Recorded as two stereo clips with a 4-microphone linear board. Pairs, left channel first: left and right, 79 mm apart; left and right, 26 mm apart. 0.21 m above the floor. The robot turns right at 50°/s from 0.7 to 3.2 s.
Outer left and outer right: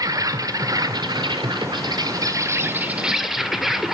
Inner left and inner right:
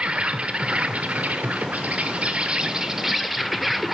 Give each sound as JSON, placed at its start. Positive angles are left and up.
{"t": 0.0, "sound": "an insect", "azimuth_deg": -130, "distance_m": 1.0}